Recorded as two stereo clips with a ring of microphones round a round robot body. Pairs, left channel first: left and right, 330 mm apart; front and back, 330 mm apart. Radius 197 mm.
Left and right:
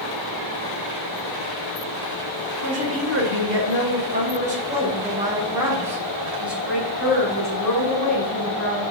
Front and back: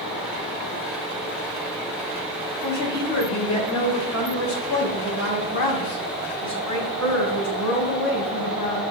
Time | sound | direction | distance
2.6 | a woman speaking | 60° right | 2 m